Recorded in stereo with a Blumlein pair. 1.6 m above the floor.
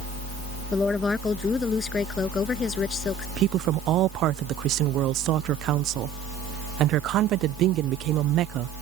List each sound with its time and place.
0.7 s a woman speaking: 10° left; by 3.3 s 20° left
3.4 s a woman speaking: 35° right